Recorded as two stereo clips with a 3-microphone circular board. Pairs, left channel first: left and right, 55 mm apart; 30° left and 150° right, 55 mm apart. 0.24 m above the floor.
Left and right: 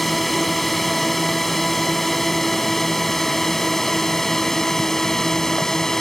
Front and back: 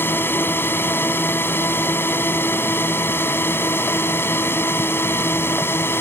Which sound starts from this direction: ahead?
A drone, at 0.0 s.